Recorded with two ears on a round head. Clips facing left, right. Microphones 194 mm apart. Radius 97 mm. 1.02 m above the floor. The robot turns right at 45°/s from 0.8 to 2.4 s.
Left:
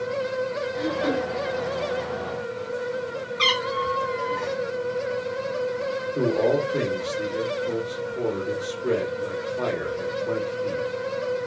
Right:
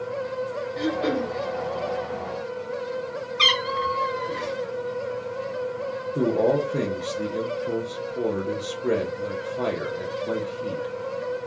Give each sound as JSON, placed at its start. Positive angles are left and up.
{"t": 0.8, "sound": "throat clearing", "side_deg": -35, "distance_m": 0.6}
{"t": 3.4, "sound": "a cat meowing", "side_deg": -25, "distance_m": 0.7}
{"t": 6.2, "sound": "a man speaking", "side_deg": -15, "distance_m": 0.8}